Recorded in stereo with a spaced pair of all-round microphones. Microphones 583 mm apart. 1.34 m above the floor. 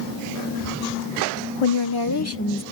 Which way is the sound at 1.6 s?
55° left (ahead or behind).